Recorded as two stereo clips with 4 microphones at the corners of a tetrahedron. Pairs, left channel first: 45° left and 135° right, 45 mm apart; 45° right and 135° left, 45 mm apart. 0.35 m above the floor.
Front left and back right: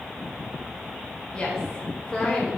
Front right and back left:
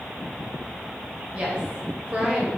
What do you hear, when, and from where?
1.3 s a woman speaking: 100° left, 1.5 m